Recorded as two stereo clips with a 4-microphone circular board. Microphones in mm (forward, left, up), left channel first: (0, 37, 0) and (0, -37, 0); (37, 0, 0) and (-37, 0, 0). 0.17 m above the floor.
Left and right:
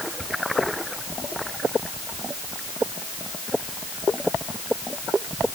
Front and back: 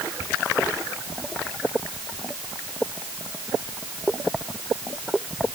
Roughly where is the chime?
I don't hear a chime.